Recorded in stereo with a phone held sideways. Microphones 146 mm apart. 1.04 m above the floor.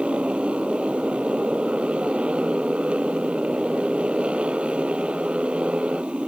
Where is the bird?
I don't hear a bird.